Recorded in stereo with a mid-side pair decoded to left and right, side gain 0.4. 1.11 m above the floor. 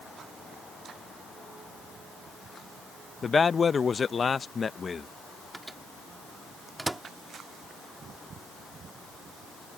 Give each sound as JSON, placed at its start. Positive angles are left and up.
{"t": 3.2, "sound": "a man speaking", "azimuth_deg": 45}
{"t": 5.5, "sound": "a microwave", "azimuth_deg": -15}